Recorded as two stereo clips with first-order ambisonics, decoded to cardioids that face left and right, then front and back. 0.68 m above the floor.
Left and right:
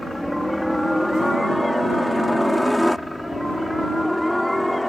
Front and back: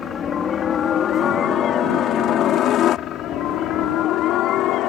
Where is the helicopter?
10° left; by 4.9 s 5° left.